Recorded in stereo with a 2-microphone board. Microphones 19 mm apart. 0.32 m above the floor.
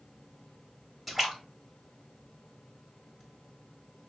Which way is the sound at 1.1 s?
5° right (ahead or behind).